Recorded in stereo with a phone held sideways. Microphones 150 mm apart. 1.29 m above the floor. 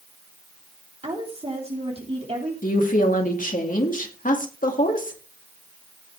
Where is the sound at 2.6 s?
65° left (ahead or behind), 2 m.